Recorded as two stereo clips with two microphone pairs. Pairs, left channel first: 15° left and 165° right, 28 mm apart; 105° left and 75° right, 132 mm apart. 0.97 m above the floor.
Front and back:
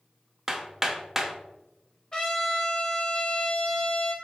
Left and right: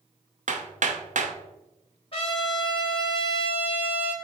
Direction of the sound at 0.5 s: 90° right.